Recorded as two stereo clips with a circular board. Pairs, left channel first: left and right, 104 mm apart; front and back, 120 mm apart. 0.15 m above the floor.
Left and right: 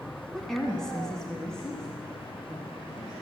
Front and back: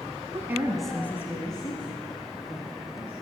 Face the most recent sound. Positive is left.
turn(degrees=5)